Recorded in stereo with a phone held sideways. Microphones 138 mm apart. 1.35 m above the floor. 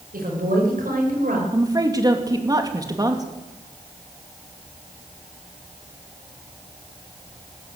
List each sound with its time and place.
0.1 s a woman speaking: 75° right (ahead or behind), 6 m
1.5 s a woman speaking: 25° right (ahead or behind), 2.5 m